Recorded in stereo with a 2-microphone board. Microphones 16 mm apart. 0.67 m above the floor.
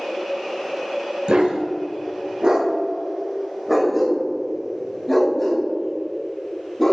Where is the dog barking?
80° right, 1.1 m; by 6.9 s 25° left (ahead or behind), 3 m.